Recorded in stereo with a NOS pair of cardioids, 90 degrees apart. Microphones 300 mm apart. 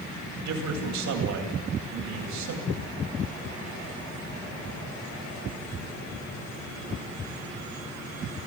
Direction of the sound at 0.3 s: 65° right.